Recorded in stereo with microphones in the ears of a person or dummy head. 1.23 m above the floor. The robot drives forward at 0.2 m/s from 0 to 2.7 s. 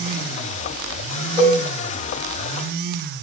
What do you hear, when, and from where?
1.4 s a cowbell: 30° right (ahead or behind), 1.0 m